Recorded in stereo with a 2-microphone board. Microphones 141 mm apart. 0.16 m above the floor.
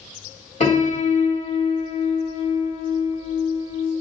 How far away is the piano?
About 1.9 m.